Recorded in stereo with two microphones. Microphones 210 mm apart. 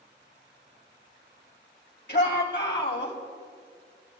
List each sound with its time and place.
2.1 s a shout: 55° left (ahead or behind), 2 m; by 3.1 s 65° left (ahead or behind), 2.5 m